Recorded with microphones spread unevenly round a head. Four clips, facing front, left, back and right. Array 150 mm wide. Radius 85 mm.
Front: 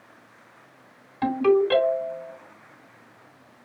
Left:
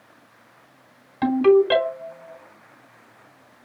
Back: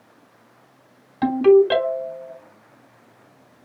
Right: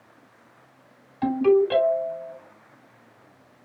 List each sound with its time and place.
1.2 s a ringtone: 85° left, 3 m